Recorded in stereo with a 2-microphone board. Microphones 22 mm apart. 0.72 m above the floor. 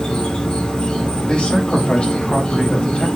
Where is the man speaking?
65° left (ahead or behind), 3.5 m.